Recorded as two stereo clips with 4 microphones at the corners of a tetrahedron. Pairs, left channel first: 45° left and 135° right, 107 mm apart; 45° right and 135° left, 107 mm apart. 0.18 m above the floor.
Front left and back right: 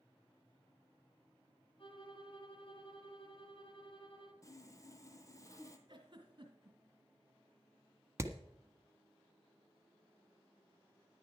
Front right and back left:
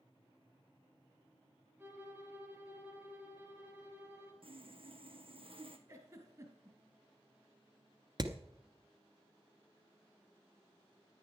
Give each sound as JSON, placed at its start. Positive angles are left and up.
{"t": 1.8, "sound": "a violin", "azimuth_deg": 70, "distance_m": 2.5}
{"t": 4.4, "sound": "sawing", "azimuth_deg": 105, "distance_m": 1.3}
{"t": 5.9, "sound": "a giggle", "azimuth_deg": -175, "distance_m": 2.0}
{"t": 8.2, "sound": "hammering", "azimuth_deg": 165, "distance_m": 1.2}